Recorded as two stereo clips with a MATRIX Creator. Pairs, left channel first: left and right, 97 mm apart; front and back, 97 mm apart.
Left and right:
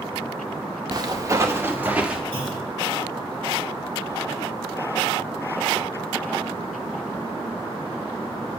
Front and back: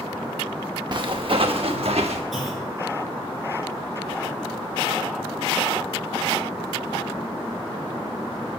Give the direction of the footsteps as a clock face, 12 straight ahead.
5 o'clock.